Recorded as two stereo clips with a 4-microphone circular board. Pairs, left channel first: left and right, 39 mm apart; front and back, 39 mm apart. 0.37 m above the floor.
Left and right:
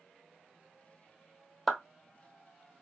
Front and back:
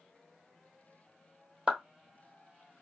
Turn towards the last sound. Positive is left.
turn(degrees=175)